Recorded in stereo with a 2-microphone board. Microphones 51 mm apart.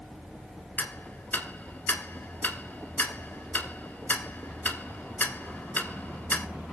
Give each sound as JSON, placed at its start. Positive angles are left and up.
{"t": 0.8, "sound": "ticking", "side_deg": 40, "distance_m": 0.9}